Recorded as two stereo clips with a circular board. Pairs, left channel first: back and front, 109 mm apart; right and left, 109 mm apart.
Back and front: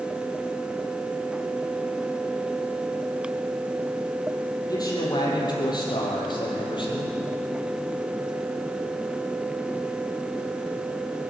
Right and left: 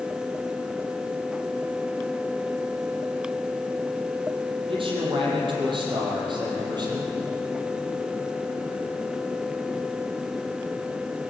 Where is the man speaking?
125° left, 6 m; by 7.2 s 140° left, 6 m.